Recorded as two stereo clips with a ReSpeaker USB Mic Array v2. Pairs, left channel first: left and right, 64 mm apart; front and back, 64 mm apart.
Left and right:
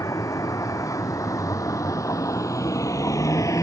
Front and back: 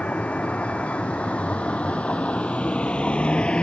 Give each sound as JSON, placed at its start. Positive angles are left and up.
{"t": 0.0, "sound": "a vehicle", "azimuth_deg": 65}